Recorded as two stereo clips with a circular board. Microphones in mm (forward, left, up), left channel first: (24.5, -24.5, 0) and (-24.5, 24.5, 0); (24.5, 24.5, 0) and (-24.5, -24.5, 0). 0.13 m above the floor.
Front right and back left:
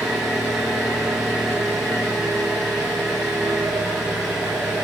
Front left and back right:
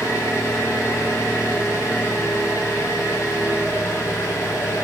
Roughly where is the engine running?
Ahead left.